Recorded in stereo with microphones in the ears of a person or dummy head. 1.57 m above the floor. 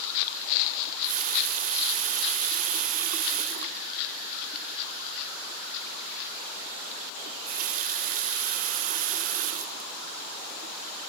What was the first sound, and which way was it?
A running tap, 35° right (ahead or behind).